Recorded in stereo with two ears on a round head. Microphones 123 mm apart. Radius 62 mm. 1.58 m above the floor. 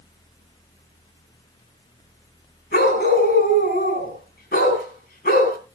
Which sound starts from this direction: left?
A dog barking, at 2.7 s.